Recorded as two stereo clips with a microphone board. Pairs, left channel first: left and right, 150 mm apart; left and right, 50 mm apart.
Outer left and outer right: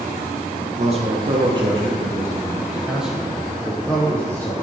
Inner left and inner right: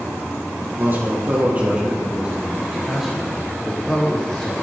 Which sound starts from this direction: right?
A man speaking, at 0.8 s.